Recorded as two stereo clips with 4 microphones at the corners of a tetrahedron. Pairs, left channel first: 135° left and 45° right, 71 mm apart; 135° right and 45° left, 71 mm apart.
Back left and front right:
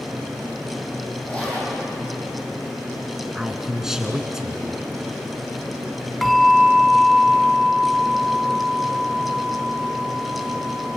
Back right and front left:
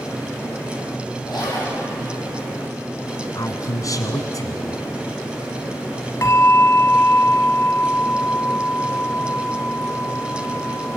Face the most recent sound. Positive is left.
turn(degrees=-135)